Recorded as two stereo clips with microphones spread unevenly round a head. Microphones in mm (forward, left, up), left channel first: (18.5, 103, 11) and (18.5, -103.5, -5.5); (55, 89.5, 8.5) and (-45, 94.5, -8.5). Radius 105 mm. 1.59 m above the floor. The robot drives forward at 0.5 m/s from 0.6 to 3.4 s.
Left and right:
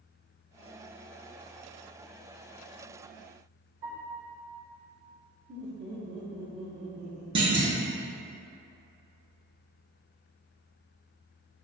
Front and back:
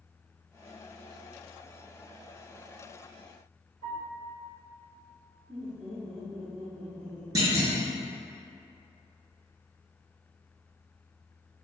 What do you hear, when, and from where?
3.8 s a piano: 125° right, 1.6 m
5.5 s laughter: 130° right, 1.0 m
7.3 s a clunk: 140° right, 0.7 m